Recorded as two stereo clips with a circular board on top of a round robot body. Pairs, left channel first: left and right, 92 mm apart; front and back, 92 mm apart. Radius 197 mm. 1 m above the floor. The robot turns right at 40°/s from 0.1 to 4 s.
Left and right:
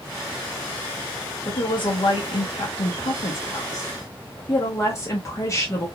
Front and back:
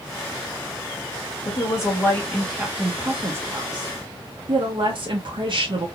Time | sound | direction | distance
1.4 | a woman speaking | 45° left | 1.2 m